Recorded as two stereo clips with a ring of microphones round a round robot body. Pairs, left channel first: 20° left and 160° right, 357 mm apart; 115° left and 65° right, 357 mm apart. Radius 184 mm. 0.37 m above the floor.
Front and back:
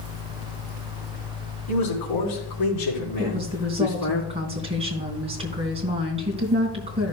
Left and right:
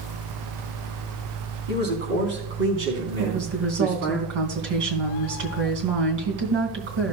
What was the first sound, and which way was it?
A man speaking, 5° right.